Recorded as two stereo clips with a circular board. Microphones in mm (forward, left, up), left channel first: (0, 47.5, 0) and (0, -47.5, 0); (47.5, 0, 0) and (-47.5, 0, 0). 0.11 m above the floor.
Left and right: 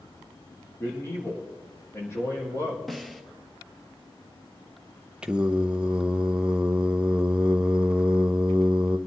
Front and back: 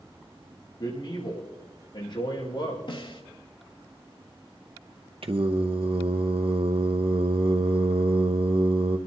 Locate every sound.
0.8 s a man speaking: 30° left, 4 m
2.9 s a snare drum: straight ahead, 1.2 m
5.2 s singing: 170° right, 0.8 m